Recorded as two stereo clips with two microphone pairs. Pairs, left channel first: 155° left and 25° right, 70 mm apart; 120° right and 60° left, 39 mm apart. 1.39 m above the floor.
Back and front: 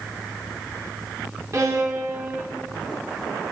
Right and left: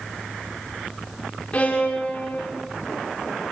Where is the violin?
65° right, 3 m.